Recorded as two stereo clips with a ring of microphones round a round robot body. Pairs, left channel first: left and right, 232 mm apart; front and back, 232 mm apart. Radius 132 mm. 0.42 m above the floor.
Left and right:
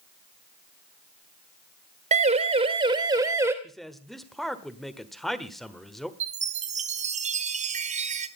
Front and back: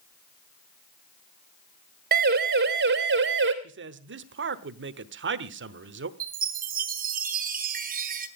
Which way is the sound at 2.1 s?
140° right.